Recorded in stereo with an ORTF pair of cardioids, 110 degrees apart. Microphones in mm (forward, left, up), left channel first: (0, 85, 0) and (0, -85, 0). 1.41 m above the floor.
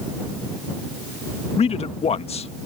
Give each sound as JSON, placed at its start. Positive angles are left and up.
{"t": 1.6, "sound": "a man speaking", "azimuth_deg": 35}